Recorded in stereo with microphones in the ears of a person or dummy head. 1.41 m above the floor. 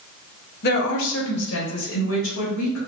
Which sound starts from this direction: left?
A woman speaking, at 0.6 s.